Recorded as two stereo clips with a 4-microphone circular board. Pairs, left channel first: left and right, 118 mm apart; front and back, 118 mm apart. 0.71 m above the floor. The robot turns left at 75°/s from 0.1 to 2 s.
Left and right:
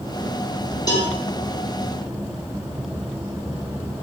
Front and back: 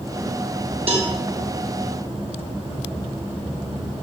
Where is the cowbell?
145° left, 3.5 m; by 1.1 s 125° left, 3.5 m.